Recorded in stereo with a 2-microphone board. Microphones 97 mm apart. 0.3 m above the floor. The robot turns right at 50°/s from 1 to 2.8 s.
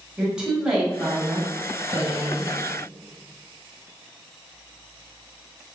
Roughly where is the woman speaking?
Behind.